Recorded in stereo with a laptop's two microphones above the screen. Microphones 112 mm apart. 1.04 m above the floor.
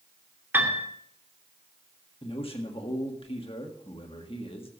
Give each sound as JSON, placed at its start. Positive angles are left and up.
{"t": 0.5, "sound": "a piano", "side_deg": -20, "distance_m": 2.5}
{"t": 2.2, "sound": "a man speaking", "side_deg": 55, "distance_m": 1.6}